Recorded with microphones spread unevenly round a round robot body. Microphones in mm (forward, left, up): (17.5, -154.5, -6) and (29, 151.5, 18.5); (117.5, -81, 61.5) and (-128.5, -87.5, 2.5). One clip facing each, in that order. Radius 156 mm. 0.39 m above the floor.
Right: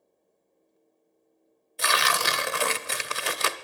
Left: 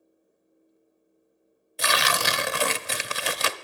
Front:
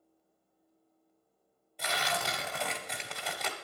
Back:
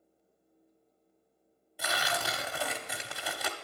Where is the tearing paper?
100° left, 0.6 m.